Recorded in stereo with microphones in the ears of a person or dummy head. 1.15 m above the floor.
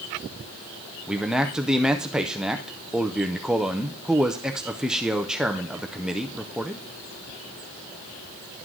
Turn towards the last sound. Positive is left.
turn(degrees=-5)  # may be behind; listen again after turning